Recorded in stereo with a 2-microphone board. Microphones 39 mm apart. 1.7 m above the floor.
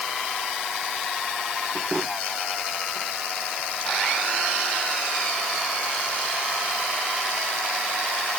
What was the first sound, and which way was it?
Only background noise.